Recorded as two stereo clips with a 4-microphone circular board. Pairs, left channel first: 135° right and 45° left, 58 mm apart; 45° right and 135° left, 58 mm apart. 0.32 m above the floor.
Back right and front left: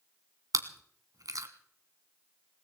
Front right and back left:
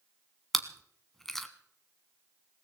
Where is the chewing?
40° left, 1.2 m.